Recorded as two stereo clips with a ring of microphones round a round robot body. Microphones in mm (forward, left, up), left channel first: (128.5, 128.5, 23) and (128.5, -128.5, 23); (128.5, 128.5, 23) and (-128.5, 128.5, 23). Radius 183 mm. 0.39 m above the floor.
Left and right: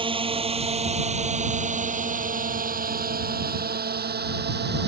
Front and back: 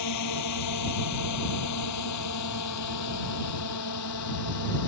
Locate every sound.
0.0 s a drone: 20° right; by 4.9 s 45° right